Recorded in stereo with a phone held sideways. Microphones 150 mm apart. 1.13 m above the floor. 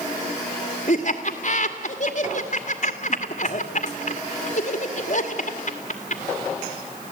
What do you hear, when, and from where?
0.9 s laughter: 50° left (ahead or behind), 2 m